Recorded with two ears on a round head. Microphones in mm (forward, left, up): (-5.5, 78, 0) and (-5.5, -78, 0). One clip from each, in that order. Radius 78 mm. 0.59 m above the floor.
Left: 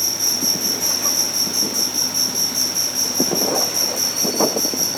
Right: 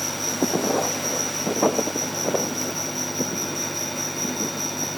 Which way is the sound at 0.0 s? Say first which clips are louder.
Left 5 dB; 50° left (ahead or behind).